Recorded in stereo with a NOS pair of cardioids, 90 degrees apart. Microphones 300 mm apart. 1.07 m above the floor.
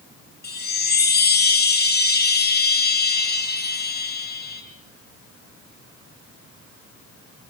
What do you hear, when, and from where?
0.4 s a chime: 30° left, 4 m